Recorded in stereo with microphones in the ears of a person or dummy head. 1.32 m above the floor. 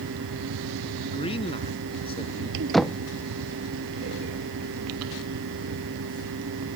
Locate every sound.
0.0 s a fan: 75° right (ahead or behind)
1.1 s a man speaking: 30° left (ahead or behind)
2.7 s knocking: centre (ahead or behind)